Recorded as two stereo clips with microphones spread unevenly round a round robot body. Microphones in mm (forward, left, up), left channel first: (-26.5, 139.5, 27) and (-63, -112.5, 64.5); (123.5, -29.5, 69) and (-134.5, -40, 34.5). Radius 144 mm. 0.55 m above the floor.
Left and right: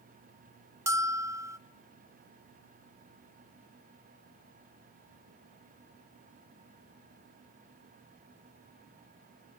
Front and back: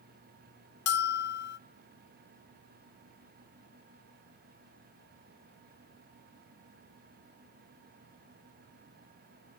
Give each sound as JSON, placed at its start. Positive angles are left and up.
{"t": 0.9, "sound": "a bell", "azimuth_deg": -15, "distance_m": 0.6}